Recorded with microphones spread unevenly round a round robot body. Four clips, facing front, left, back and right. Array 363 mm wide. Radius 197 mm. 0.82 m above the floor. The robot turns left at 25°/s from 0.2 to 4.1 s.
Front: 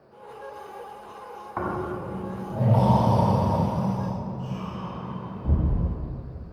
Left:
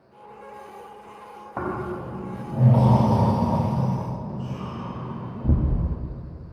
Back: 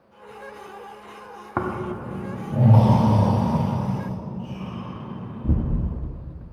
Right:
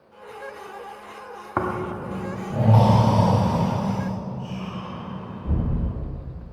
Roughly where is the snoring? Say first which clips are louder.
Right 3 dB, back 2 dB; behind.